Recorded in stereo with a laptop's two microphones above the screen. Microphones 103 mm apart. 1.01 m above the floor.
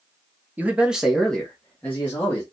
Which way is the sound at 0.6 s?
15° right (ahead or behind).